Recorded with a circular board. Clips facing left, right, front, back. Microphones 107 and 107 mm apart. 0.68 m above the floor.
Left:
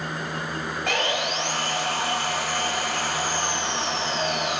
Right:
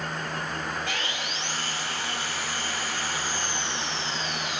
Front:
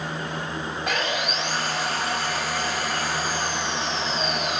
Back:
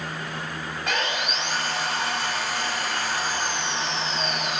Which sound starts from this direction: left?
Sawing, at 0.9 s.